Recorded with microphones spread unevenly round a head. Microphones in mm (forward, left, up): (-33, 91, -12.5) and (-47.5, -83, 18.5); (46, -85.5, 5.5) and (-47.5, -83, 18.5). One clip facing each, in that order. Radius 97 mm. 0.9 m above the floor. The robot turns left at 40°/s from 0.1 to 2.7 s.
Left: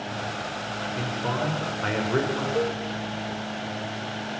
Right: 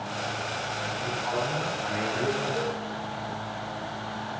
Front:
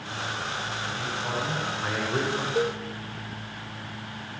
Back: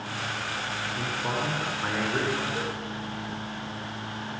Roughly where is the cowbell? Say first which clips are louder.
Left 5 dB, front 6 dB; ahead left.